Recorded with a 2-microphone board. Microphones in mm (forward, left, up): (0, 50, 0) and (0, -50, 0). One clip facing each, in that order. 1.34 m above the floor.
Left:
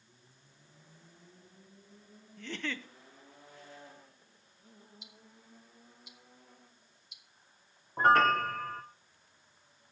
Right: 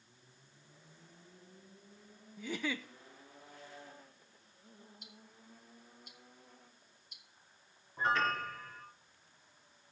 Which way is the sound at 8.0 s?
55° left (ahead or behind).